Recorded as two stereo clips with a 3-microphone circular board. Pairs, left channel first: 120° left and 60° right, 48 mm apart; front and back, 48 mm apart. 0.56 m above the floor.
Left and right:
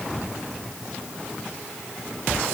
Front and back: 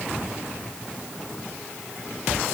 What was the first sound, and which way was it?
Only background noise.